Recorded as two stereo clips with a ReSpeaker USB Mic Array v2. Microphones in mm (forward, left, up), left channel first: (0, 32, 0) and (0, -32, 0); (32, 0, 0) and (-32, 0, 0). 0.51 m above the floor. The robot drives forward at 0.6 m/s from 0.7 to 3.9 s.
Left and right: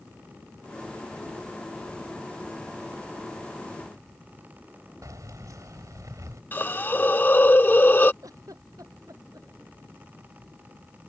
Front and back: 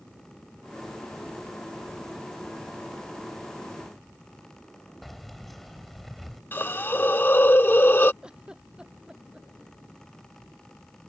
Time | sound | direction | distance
5.0 | keys jangling | 90° right | ?
6.5 | a hiss | 40° left | ?
8.2 | a giggle | 105° right | ?